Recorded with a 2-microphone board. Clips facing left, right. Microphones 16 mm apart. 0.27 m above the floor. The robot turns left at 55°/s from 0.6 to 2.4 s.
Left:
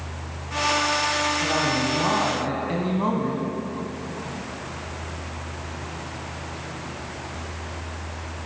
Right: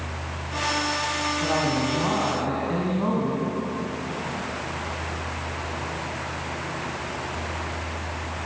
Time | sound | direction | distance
1.4 | a woman speaking | 160° right | 2 m